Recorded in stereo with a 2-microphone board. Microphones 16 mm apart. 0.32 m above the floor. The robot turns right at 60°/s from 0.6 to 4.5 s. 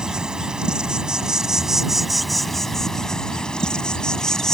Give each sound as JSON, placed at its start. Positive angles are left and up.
{"t": 0.0, "sound": "an insect", "azimuth_deg": -100}